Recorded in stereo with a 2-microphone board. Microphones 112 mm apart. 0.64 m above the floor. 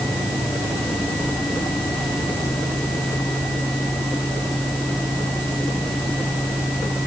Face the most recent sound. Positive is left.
No sound to turn to.